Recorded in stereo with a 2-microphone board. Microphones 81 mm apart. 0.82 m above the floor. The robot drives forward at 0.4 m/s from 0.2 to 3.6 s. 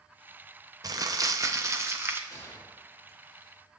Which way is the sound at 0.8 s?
50° right (ahead or behind).